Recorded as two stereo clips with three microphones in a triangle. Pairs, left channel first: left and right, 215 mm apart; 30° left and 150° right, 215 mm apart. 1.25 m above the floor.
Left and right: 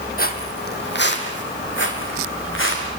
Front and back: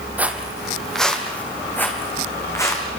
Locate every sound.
0.2 s footsteps: 130° left, 2 m; by 2.8 s 105° left, 4.5 m